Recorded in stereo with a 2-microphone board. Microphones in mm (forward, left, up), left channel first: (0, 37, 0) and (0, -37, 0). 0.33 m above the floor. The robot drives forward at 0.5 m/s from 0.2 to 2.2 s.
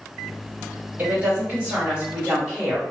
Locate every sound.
1.0 s a woman speaking: 20° right (ahead or behind), 1.7 m; by 2.8 s 15° right (ahead or behind), 2 m